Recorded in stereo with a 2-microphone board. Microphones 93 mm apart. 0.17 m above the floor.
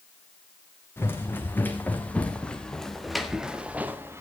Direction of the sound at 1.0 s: 25° left (ahead or behind).